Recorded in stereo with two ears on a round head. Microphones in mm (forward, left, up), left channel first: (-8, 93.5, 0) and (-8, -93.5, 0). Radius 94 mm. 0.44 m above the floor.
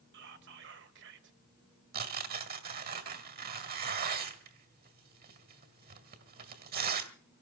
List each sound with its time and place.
0.1 s whispering: 60° right (ahead or behind), 1.9 m
1.9 s tearing paper: 45° right (ahead or behind), 2.0 m